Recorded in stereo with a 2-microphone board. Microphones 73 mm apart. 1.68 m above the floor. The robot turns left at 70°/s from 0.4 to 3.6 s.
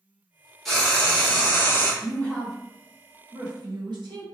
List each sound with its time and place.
0.7 s frying: 175° left, 1.0 m; by 1.9 s 85° left, 1.0 m
2.0 s a woman speaking: 35° left (ahead or behind), 1.2 m; by 4.2 s 75° right (ahead or behind), 1.2 m